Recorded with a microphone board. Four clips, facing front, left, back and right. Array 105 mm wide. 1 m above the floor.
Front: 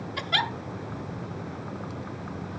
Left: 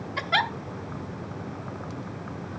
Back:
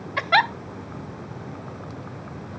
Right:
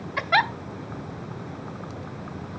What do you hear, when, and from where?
0.2 s a giggle: 160° right, 0.6 m